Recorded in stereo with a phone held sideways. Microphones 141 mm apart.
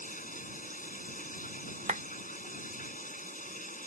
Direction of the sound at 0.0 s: 80° left.